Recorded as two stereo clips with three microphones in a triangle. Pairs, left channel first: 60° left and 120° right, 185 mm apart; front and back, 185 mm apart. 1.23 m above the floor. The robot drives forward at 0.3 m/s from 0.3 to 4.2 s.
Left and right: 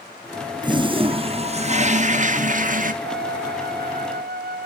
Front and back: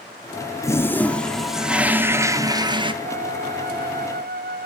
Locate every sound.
0.6 s a toilet flushing: 65° right, 0.9 m; by 2.9 s 130° right, 1.0 m
3.0 s a flute: 135° right, 0.5 m; by 4.7 s 155° right, 0.8 m